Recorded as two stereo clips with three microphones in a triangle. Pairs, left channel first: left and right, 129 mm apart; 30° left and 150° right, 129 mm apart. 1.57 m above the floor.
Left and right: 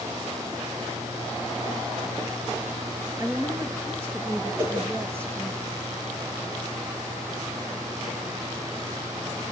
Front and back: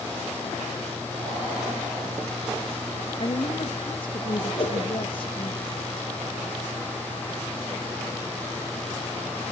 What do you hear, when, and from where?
3.2 s a woman speaking: 20° right, 2.5 m
4.6 s a whoosh: 20° right, 7 m